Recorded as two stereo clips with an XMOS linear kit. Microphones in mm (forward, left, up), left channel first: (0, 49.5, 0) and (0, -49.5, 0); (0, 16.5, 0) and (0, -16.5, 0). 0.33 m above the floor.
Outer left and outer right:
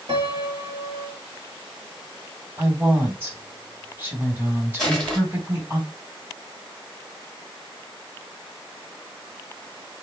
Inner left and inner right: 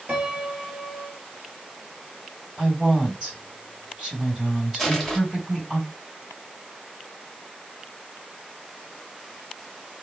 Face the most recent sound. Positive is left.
turn(degrees=10)  # may be behind; listen again after turning